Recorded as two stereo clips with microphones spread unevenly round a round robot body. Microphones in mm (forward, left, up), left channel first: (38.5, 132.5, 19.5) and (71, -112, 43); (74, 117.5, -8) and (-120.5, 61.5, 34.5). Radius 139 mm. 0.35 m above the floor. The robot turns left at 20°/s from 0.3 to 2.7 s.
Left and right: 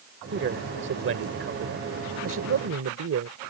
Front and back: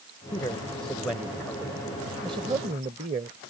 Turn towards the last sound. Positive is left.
turn(degrees=-95)